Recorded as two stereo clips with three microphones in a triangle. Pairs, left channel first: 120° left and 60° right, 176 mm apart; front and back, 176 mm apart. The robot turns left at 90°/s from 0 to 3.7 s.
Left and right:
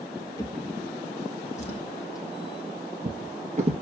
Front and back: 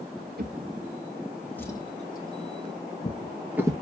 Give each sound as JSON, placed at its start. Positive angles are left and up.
{"t": 0.4, "sound": "a drawer", "azimuth_deg": -175, "distance_m": 1.4}